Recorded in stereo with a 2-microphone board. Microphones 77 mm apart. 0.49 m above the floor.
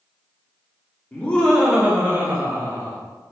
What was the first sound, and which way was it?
Laughter, 25° left (ahead or behind).